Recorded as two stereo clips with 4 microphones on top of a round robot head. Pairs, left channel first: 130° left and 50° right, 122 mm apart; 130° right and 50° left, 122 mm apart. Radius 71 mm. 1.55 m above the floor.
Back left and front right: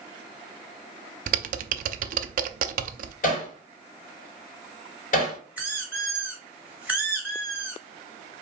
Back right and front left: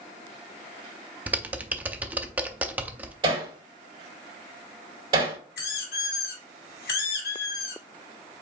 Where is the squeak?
125° right, 2.5 m.